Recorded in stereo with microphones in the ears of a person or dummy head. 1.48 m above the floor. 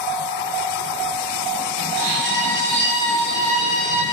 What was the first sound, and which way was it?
A violin, 60° right (ahead or behind).